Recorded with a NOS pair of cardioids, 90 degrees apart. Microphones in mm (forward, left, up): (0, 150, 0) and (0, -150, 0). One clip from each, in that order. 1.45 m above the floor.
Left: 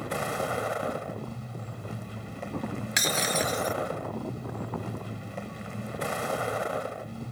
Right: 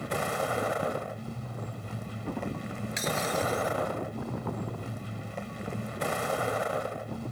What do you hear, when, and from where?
0.0 s a vehicle: 5° right
3.0 s breaking glass: 60° left